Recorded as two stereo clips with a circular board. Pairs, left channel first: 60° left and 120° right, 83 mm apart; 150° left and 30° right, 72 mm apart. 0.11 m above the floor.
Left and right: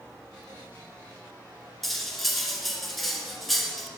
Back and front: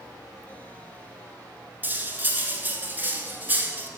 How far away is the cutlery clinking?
About 0.8 m.